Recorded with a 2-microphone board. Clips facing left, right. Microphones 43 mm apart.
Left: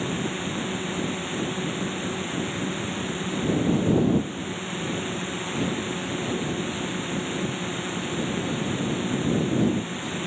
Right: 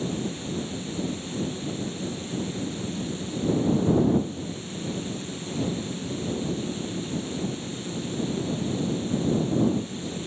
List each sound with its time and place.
0.0 s a drone: 45° left (ahead or behind)